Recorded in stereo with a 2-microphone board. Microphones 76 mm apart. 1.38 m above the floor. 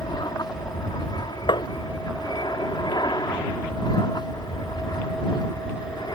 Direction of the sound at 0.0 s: 65° left (ahead or behind).